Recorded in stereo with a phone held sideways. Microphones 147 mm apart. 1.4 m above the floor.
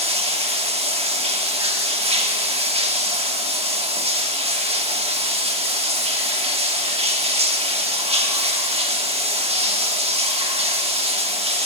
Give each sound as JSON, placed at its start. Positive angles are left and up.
{"t": 0.0, "sound": "running water", "side_deg": -45, "distance_m": 1.0}